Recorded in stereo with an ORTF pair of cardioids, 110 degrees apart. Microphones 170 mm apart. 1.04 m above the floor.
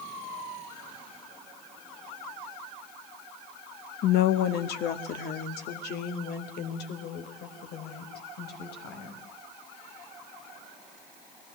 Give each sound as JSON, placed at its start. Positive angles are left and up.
{"t": 4.0, "sound": "a woman speaking", "azimuth_deg": 70, "distance_m": 1.0}